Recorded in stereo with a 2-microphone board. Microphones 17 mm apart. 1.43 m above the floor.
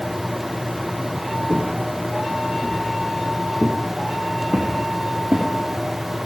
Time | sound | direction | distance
1.5 | footsteps | 40° right (ahead or behind) | 4.5 m